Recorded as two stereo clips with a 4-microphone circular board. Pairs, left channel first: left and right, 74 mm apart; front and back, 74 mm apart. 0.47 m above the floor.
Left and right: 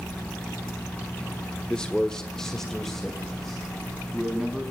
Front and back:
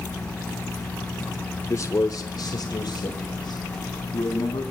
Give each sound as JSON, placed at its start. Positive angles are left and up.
{"t": 1.7, "sound": "a man speaking", "azimuth_deg": 20, "distance_m": 1.0}